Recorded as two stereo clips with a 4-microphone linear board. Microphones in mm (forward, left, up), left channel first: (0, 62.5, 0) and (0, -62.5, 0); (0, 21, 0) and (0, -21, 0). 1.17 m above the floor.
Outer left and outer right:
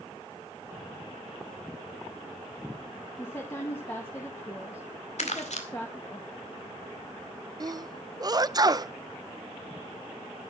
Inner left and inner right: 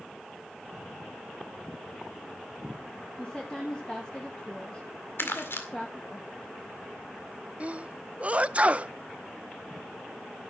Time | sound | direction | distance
3.2 | a woman speaking | 20° left (ahead or behind) | 1.8 m
5.2 | crumpling | 65° left (ahead or behind) | 2 m
7.6 | a sneeze | 30° right (ahead or behind) | 0.5 m